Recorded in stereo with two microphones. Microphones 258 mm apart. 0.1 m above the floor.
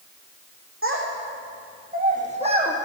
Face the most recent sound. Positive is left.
turn(degrees=-15)  # may be behind; listen again after turning